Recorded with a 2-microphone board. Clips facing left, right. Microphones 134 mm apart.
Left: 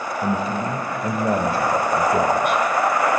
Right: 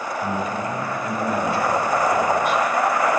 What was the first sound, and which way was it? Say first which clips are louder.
A man speaking: left 3 dB; 30° left (ahead or behind).